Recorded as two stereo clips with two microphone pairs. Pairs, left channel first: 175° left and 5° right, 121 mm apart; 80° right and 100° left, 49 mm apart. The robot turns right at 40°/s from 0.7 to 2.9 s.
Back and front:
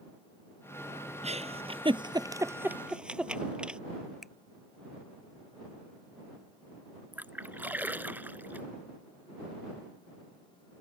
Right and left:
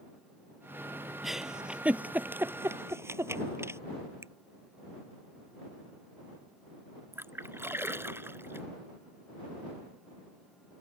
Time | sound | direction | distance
1.2 | a giggle | 10° left | ?
4.2 | a finger snap | 85° left | ?
7.1 | a splash | 70° left | ?